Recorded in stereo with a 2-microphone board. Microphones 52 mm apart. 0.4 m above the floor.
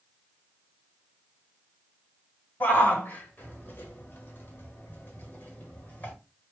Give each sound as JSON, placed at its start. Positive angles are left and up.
{"t": 2.6, "sound": "a shout", "side_deg": 35, "distance_m": 1.9}